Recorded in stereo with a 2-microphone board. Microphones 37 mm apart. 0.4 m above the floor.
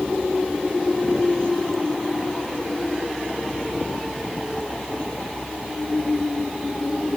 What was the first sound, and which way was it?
Only background noise.